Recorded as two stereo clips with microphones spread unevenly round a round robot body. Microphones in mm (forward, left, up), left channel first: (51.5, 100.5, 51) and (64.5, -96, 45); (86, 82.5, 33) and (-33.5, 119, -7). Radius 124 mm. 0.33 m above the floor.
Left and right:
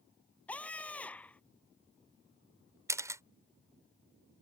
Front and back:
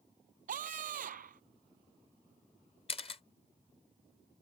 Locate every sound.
0.5 s a scream: straight behind
2.9 s a camera shutter: 35° right